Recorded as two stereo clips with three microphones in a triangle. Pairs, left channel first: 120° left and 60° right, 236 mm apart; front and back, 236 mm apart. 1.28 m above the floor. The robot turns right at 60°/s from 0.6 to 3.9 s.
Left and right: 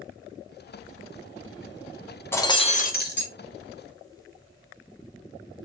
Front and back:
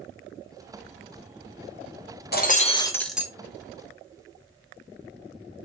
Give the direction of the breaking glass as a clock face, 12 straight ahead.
11 o'clock.